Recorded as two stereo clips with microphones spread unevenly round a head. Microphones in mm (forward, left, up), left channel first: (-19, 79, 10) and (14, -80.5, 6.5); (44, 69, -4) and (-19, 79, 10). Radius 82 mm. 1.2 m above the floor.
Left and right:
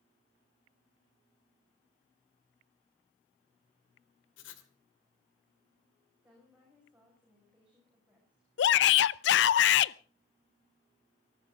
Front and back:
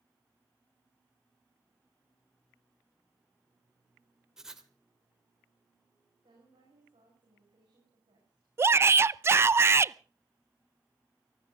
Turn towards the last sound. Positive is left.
turn(degrees=120)